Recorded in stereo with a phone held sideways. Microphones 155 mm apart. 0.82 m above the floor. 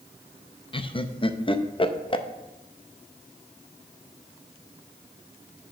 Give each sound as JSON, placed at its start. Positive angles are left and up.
{"t": 0.7, "sound": "laughter", "side_deg": 30, "distance_m": 0.5}